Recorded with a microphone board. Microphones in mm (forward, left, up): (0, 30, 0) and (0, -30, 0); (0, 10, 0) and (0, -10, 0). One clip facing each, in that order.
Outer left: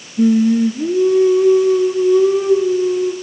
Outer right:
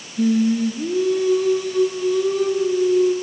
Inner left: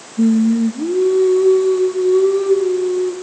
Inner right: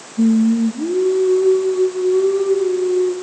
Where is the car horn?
No car horn in this recording.